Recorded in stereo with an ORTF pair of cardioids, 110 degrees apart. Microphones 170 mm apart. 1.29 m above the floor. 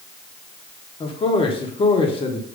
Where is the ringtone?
No ringtone in this recording.